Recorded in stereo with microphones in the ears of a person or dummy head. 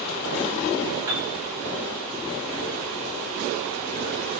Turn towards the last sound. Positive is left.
turn(degrees=-15)  # may be behind; listen again after turning